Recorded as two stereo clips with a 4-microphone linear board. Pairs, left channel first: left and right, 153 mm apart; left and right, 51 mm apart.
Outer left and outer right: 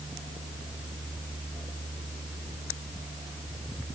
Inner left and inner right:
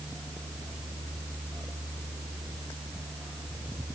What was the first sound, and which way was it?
Only background noise.